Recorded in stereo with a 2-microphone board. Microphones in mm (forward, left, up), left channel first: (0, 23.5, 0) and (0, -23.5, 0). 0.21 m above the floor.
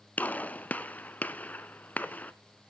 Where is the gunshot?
35° left (ahead or behind), 0.9 m.